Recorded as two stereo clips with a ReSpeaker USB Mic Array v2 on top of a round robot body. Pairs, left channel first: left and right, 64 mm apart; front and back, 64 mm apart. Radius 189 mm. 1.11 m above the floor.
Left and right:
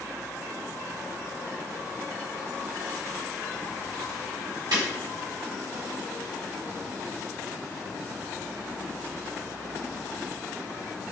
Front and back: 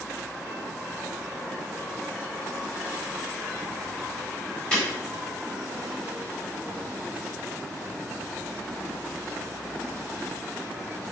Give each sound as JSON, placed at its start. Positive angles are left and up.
{"t": 4.7, "sound": "breaking glass", "azimuth_deg": -75, "distance_m": 1.4}